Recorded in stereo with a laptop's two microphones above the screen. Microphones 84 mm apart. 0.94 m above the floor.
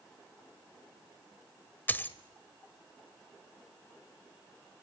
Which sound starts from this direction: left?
A dropped coin, at 1.9 s.